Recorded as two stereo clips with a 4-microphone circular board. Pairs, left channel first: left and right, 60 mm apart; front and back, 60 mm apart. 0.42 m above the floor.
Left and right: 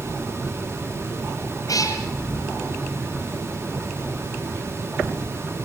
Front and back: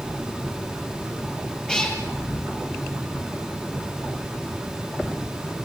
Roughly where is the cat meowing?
Left.